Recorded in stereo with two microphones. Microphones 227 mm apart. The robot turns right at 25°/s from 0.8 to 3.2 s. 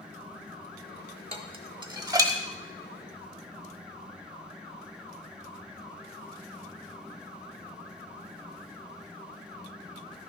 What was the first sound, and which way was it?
Dishes clattering, 25° right (ahead or behind).